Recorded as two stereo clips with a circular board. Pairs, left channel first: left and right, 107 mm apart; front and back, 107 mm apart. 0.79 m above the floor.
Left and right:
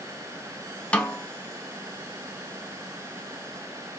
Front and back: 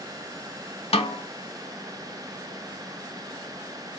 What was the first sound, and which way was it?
A snare drum, 10° left.